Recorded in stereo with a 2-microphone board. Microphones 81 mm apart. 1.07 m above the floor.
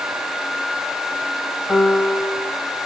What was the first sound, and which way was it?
A piano, 20° left (ahead or behind).